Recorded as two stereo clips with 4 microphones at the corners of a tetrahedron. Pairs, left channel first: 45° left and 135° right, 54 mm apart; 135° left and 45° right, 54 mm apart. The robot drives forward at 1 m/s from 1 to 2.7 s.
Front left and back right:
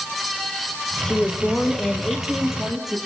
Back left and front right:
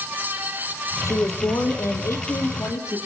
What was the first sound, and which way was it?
A woman speaking, 120° left.